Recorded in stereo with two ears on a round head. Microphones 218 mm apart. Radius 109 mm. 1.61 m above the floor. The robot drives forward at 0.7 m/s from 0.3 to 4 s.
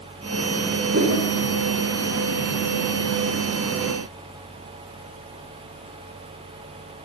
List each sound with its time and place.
0.9 s a whoosh: 40° right (ahead or behind), 5 m